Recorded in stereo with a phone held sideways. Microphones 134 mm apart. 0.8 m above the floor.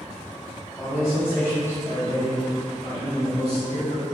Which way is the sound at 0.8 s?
5° left (ahead or behind).